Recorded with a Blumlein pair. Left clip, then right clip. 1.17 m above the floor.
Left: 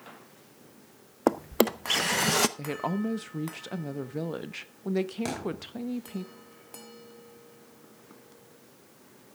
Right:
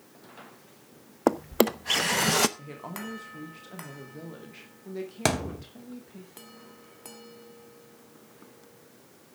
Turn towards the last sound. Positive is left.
turn(degrees=-35)